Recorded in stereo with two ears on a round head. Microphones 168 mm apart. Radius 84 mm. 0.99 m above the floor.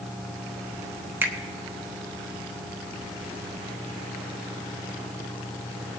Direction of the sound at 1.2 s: 10° right (ahead or behind).